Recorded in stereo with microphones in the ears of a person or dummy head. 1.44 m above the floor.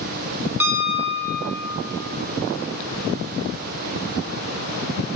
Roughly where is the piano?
Centre.